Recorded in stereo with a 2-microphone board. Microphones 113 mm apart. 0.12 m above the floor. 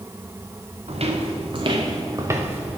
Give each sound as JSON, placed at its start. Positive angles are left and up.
{"t": 0.9, "sound": "footsteps", "side_deg": -65, "distance_m": 1.4}